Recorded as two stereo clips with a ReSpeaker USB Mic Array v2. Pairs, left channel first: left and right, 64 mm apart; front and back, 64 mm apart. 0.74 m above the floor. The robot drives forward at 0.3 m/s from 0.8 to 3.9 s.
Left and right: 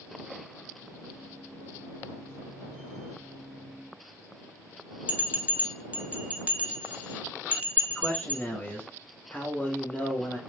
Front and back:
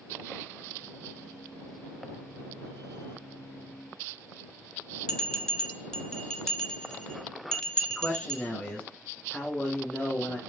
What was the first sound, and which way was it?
A bell, 65° right.